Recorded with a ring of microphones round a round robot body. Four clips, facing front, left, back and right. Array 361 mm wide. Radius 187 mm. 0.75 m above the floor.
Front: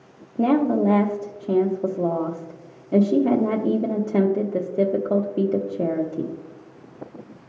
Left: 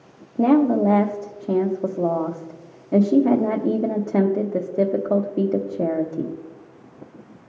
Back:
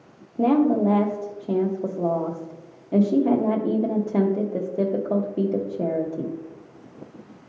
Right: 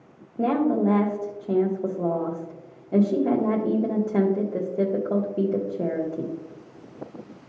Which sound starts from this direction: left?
A woman speaking, at 0.4 s.